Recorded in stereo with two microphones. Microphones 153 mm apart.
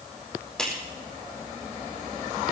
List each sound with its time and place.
0.6 s a clap: 5° left (ahead or behind), 5 m